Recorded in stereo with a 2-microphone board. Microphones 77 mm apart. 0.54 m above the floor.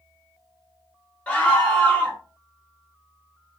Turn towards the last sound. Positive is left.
turn(degrees=15)  # may be behind; listen again after turning